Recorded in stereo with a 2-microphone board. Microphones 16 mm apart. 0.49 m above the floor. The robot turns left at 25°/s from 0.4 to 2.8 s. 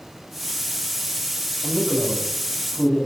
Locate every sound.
1.6 s a man speaking: 30° left (ahead or behind), 4.5 m; by 3.1 s 60° left (ahead or behind), 4.5 m